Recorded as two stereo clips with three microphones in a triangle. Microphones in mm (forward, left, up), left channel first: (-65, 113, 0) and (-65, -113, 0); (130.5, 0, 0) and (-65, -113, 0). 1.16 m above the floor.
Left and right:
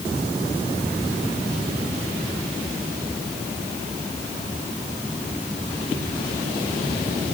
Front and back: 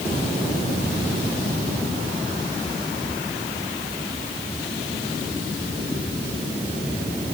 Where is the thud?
No thud in this recording.